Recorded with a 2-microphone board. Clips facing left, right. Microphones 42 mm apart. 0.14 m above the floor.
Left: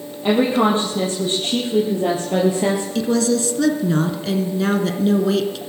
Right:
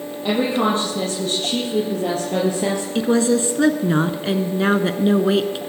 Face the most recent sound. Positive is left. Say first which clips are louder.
# right 4 dB
turn(degrees=-25)  # may be behind; listen again after turning